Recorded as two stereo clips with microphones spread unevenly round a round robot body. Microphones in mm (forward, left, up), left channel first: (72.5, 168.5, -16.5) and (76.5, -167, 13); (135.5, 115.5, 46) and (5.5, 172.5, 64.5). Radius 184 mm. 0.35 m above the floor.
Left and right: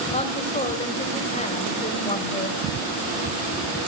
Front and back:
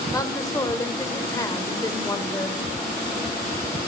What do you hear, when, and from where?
0.1 s a woman speaking: 30° left, 1.8 m